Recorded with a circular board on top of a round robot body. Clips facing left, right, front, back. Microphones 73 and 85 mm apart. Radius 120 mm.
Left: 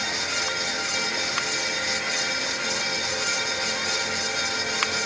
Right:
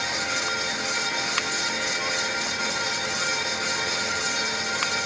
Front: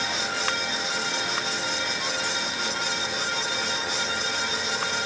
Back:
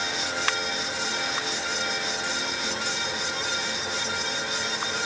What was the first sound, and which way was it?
Only background noise.